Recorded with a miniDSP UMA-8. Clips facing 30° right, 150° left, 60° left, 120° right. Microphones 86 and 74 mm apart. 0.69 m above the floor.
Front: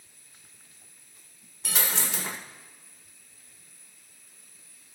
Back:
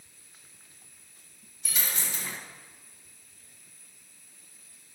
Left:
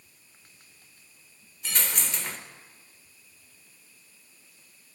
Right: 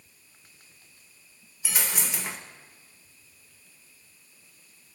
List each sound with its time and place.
1.6 s a dropped coin: 40° right, 0.7 m